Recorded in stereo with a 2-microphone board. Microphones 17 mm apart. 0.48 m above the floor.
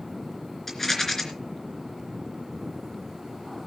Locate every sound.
0.7 s a rattle: 15° left (ahead or behind), 3 m